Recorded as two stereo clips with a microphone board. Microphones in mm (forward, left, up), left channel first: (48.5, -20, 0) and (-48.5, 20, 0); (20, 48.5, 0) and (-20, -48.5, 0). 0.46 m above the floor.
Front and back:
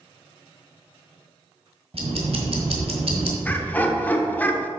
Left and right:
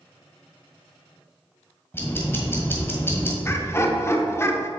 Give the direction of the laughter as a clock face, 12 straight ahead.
11 o'clock.